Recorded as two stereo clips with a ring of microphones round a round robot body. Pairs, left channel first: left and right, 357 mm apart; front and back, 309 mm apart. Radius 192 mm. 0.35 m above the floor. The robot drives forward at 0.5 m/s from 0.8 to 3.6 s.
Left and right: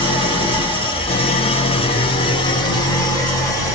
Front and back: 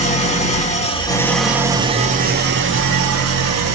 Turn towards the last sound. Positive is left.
turn(degrees=170)